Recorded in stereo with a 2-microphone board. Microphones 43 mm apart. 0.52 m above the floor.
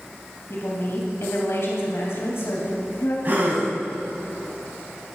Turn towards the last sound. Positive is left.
turn(degrees=-40)  # may be behind; listen again after turning